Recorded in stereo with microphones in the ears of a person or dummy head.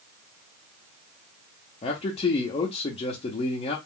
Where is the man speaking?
25° left (ahead or behind), 0.7 m.